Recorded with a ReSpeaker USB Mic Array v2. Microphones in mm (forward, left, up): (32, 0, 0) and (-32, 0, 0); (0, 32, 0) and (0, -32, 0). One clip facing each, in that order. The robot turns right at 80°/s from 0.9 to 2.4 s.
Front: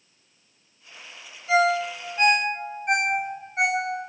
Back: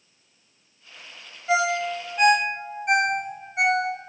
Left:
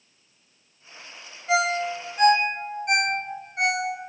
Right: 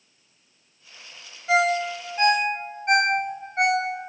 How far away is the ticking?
No ticking in this recording.